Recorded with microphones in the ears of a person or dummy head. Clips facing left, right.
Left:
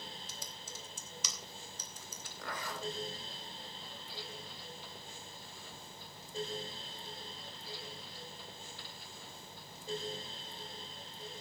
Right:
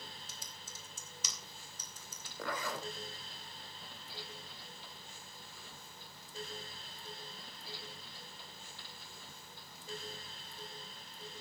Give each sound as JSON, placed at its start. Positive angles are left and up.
{"t": 0.3, "sound": "typing on a keyboard", "side_deg": 75, "distance_m": 2.5}
{"t": 2.4, "sound": "a zipper", "side_deg": -65, "distance_m": 2.5}